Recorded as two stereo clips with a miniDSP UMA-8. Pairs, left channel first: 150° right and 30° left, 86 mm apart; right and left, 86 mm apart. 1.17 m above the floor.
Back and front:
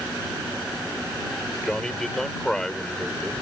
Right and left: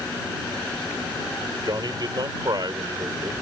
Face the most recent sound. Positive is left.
turn(degrees=125)